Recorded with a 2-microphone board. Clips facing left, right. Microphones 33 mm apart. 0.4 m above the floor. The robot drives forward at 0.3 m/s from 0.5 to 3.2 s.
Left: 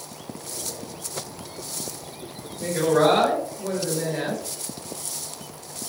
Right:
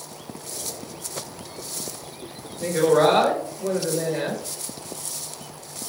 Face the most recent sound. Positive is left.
turn(degrees=-20)  # may be behind; listen again after turning